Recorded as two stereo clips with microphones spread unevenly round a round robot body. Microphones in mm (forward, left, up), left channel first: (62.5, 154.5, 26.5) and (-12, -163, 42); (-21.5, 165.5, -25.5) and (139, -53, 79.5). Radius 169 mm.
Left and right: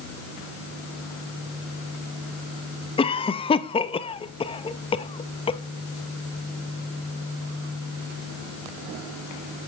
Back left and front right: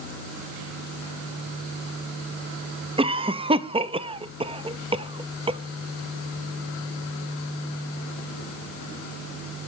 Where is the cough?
40° left, 0.7 m.